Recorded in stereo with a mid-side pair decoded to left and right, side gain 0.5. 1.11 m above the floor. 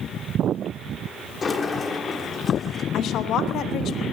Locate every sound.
1.4 s a sliding door: 40° left, 1.4 m
2.9 s a woman speaking: 65° left, 1.0 m